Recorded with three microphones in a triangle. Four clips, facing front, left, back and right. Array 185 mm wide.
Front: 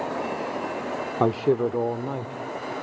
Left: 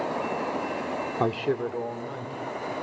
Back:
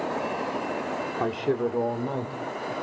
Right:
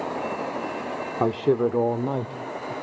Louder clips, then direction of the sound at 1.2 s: Right 6 dB, front 5 dB; 15° right.